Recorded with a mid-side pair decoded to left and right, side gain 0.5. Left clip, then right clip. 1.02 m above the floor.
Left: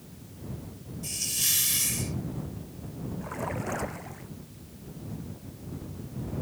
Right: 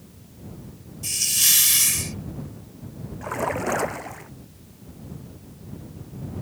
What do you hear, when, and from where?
1.0 s a hiss: 50° right
3.2 s a splash: 50° right